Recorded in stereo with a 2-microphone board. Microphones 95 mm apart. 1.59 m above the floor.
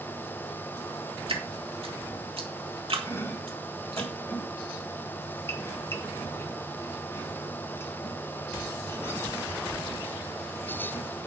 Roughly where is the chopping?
Left.